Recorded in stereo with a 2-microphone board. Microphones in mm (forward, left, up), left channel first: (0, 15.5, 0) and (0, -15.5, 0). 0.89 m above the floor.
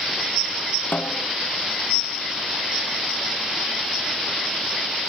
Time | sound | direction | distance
0.9 | a snare drum | 70° left (ahead or behind) | ?